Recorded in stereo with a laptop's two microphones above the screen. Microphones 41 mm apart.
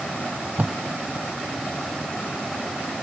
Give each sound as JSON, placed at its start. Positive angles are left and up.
{"t": 0.2, "sound": "tape being pulled", "side_deg": -45}